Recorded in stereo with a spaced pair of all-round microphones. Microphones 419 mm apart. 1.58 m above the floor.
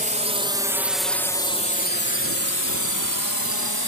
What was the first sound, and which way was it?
A drone, 20° right (ahead or behind).